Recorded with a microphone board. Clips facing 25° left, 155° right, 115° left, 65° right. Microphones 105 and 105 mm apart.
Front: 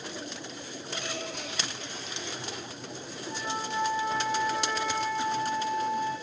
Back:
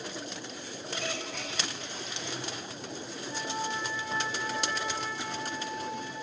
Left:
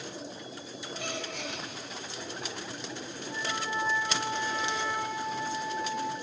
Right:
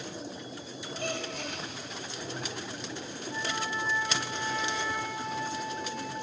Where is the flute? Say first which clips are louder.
Front 1 dB, even; 75° left, 7.5 m.